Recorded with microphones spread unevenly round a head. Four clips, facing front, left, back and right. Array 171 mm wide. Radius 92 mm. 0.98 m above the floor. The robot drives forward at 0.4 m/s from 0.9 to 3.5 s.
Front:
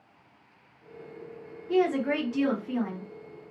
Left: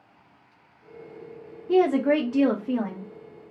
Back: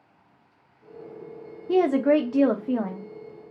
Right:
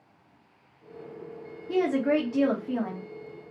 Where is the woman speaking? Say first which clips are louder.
Left 4 dB, back 5 dB; 160° left, 0.7 m; by 3.1 s 170° left, 1.1 m.